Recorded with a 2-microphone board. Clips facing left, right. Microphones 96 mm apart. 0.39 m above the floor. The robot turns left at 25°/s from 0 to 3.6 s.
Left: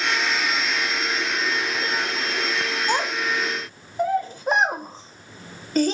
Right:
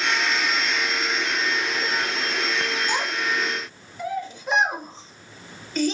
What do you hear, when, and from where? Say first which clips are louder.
2.9 s a child speaking: left 2 dB; 45° left (ahead or behind), 0.6 m